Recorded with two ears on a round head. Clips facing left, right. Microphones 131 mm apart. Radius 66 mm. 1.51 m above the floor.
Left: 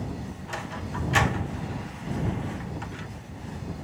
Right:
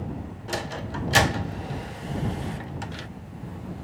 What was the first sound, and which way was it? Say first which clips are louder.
A sliding door: right 5 dB; 40° right (ahead or behind).